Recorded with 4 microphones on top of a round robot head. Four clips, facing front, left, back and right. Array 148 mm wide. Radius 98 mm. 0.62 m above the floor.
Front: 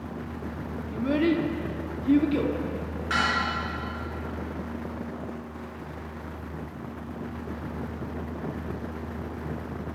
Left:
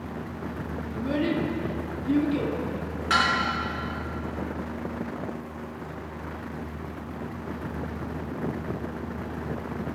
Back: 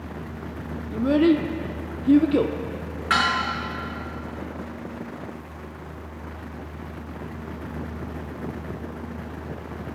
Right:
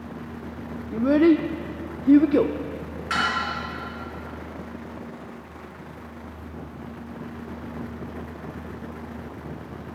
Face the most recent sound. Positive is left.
turn(degrees=160)